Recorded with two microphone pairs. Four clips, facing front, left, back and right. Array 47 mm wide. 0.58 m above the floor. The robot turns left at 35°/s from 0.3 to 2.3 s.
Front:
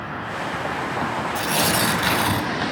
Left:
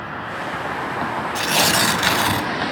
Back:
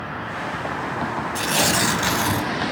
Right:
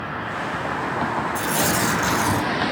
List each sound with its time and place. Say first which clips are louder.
1.4 s tearing paper: left 6 dB, back 1 dB; 115° left, 1.5 m; by 2.5 s 85° left, 1.5 m